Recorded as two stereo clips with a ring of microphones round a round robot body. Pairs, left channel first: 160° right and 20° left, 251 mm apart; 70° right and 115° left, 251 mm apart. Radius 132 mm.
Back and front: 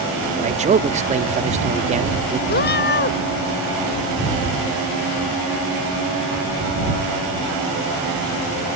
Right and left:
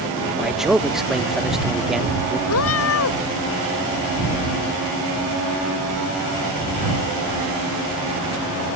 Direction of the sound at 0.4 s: 25° left.